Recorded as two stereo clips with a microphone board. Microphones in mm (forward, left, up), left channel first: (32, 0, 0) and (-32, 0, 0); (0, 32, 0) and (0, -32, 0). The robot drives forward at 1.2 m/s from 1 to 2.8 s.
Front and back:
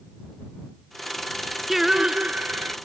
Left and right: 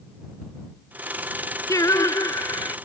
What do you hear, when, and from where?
1.7 s singing: 95° left; by 2.8 s 125° left